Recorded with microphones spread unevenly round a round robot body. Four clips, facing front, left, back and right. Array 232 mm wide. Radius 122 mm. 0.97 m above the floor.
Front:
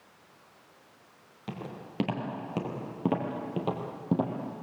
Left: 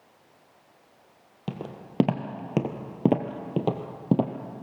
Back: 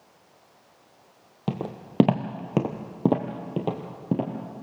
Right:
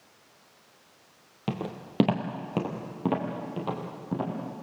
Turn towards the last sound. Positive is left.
turn(degrees=100)